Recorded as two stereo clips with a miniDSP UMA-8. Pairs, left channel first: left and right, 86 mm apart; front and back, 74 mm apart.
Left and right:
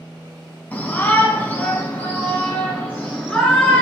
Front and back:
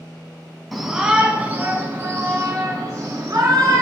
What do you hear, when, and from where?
0.7 s a shout: 95° left, 1.0 m; by 3.8 s 165° left, 2.0 m